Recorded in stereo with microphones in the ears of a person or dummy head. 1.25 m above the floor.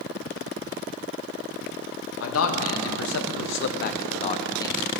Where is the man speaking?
75° left (ahead or behind), 1.2 m; by 4.8 s 15° left (ahead or behind), 0.8 m.